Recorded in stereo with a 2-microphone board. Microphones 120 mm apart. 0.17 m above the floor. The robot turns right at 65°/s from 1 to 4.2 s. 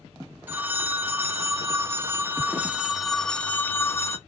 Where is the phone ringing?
15° right (ahead or behind), 0.7 m; by 4.2 s 20° left (ahead or behind), 0.7 m.